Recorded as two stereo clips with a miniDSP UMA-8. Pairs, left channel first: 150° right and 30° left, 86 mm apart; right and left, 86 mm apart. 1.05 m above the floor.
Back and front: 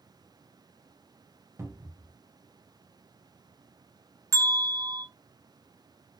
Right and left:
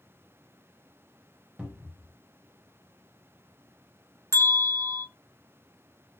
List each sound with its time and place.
1.6 s a cupboard door: 30° left, 0.6 m
4.3 s a bell: 65° left, 0.7 m